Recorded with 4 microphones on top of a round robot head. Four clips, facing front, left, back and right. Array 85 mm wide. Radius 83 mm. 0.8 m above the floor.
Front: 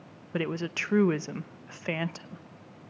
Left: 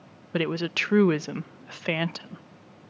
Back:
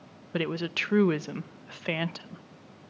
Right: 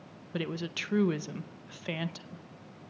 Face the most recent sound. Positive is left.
turn(degrees=95)